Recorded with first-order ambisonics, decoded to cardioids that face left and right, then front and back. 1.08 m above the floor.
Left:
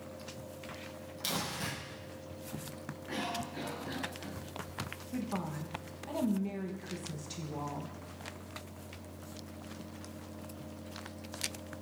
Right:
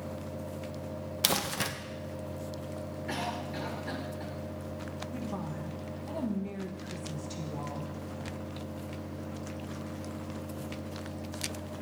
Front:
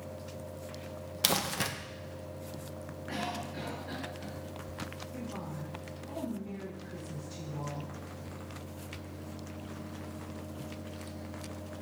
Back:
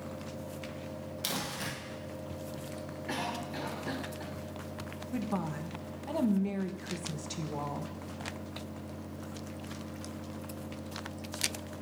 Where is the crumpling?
55° right, 0.8 m.